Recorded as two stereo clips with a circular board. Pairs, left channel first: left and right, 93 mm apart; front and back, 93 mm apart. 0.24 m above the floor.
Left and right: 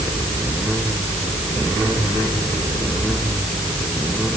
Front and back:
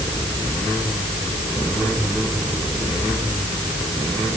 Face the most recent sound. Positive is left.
No sound to turn to.